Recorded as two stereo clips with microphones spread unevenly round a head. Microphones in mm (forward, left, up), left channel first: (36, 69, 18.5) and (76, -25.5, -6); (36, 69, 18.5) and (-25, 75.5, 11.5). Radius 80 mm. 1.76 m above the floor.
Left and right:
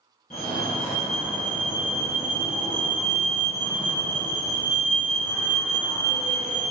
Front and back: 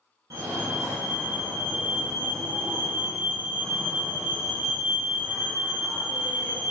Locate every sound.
0.3 s a fire alarm: 160° left, 3.5 m